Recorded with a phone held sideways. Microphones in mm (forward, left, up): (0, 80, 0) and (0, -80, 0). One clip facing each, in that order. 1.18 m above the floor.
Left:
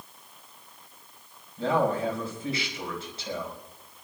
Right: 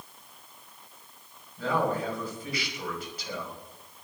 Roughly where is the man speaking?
Left.